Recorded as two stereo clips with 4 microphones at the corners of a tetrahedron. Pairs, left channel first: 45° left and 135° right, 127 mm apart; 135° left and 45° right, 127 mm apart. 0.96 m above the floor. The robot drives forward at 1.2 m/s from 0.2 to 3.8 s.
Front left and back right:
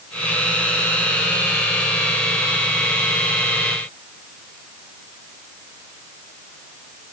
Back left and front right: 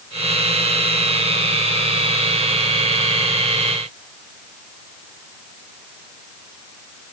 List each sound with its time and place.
Only background noise.